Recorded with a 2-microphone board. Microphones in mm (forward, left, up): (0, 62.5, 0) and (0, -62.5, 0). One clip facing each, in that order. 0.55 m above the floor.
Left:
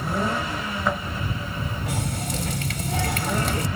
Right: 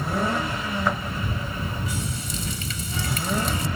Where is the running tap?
65° left (ahead or behind).